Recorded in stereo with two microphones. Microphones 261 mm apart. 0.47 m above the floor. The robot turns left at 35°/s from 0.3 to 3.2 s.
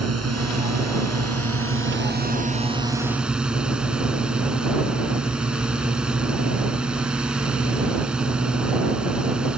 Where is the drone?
75° right; by 9.6 s 175° right.